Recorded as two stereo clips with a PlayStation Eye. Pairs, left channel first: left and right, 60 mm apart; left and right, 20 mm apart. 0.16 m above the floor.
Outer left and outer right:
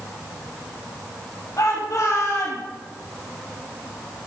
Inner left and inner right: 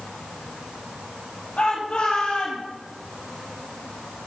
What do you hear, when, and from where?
1.6 s a shout: 65° left (ahead or behind), 5.5 m